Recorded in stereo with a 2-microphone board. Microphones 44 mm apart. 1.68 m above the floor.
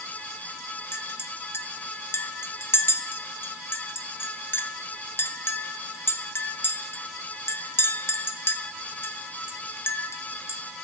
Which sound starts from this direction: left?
A clink, at 0.9 s.